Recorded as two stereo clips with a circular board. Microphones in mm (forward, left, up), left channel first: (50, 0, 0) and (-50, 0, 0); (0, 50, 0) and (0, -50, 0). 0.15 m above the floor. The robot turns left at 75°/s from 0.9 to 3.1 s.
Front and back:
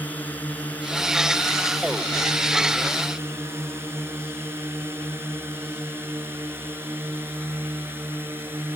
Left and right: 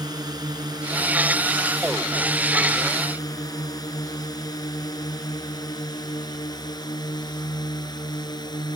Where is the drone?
70° right; by 8.8 s 115° left.